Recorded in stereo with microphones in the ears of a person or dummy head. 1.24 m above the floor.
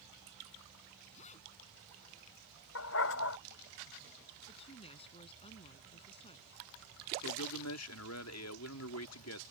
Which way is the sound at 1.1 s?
40° left (ahead or behind).